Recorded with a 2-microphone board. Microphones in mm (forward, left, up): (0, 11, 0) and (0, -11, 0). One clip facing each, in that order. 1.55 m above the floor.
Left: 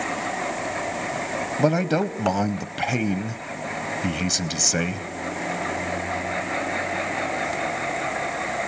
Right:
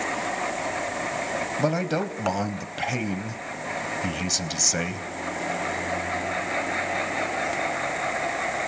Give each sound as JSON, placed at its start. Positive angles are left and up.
{"t": 1.6, "sound": "a man speaking", "side_deg": 20, "distance_m": 0.6}